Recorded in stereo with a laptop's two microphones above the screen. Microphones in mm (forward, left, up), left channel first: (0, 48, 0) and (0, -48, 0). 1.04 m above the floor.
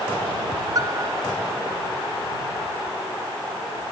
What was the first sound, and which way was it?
A piano, 40° right (ahead or behind).